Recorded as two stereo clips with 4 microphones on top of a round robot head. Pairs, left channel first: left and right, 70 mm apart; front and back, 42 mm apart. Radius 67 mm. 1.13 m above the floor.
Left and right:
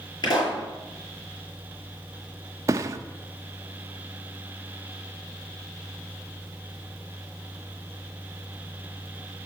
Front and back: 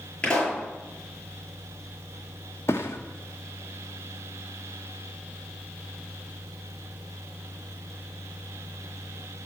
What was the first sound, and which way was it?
A pop, 65° left.